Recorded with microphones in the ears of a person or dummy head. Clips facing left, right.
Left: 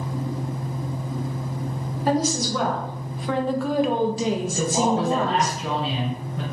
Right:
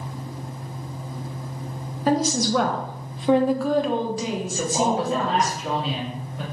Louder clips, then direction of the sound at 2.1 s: Right 2 dB; 70° right (ahead or behind).